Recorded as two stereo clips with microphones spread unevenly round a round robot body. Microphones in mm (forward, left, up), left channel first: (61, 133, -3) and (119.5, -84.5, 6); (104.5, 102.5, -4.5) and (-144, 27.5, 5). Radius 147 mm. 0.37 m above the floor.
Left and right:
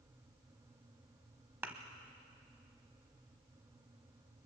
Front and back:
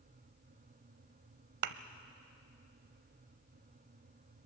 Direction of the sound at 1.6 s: 160° right.